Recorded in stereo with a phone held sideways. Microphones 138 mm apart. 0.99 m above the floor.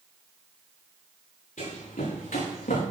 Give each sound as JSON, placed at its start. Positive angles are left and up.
{"t": 1.6, "sound": "running footsteps", "side_deg": 65, "distance_m": 5.5}